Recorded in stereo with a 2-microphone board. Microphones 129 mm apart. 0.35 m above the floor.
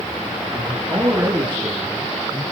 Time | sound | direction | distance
0.5 | a man speaking | 15° right (ahead or behind) | 4.5 m